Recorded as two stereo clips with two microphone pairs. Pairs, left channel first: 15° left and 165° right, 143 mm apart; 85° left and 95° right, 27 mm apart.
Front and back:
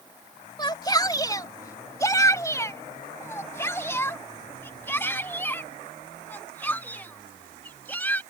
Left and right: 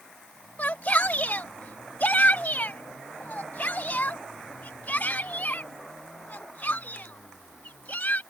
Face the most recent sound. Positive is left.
turn(degrees=95)